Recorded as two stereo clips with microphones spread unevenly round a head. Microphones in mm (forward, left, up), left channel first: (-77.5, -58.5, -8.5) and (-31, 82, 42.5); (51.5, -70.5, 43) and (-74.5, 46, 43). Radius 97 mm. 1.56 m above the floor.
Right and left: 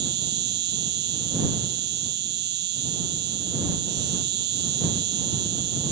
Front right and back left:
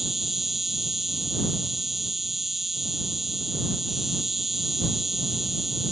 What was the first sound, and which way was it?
An insect, 50° left.